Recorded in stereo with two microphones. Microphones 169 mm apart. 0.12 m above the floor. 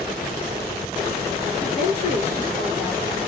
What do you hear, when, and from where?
1.6 s a woman speaking: 35° left (ahead or behind), 2.5 m